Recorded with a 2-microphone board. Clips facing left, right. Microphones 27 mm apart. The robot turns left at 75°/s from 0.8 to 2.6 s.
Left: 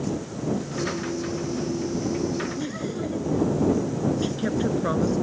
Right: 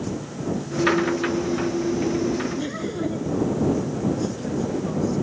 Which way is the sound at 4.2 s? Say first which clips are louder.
Left 1 dB; 50° left (ahead or behind).